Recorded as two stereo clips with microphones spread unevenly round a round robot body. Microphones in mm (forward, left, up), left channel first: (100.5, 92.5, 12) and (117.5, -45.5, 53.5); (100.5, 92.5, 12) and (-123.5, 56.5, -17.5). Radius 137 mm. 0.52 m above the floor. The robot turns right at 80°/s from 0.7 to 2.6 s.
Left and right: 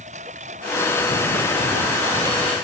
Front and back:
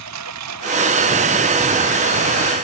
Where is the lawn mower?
145° right; by 2.6 s 5° left.